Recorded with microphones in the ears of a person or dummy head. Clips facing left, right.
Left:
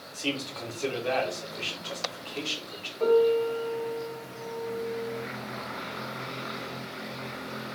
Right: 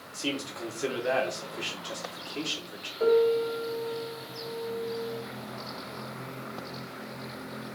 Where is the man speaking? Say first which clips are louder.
Even; 10° right (ahead or behind), 3 m.